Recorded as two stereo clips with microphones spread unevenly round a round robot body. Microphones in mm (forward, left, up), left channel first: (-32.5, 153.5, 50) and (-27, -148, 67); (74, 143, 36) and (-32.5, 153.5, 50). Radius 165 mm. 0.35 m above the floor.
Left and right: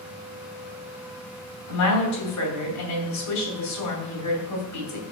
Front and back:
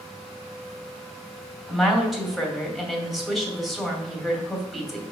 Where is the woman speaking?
80° left, 2.5 m.